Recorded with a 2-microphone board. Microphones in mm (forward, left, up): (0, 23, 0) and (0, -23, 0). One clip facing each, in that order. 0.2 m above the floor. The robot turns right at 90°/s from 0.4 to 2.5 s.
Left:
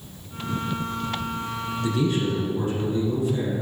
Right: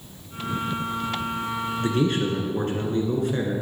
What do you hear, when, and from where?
1.8 s a man speaking: 140° right, 2 m; by 3.6 s 75° right, 2 m